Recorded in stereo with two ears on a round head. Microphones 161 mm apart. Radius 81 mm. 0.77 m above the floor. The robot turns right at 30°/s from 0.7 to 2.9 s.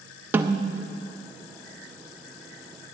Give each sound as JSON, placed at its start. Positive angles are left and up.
{"t": 0.3, "sound": "a snare drum", "side_deg": -15, "distance_m": 0.6}